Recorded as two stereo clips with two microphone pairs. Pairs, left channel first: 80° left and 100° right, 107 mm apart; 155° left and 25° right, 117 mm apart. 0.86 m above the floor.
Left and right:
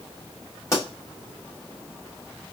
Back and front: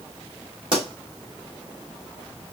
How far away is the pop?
About 2.5 m.